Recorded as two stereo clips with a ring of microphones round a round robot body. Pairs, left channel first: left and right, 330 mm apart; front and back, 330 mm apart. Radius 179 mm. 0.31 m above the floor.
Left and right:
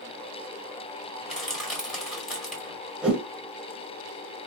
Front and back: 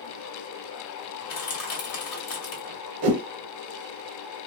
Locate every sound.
1.2 s crushing: straight ahead, 2.5 m
3.0 s a whoosh: straight behind, 1.0 m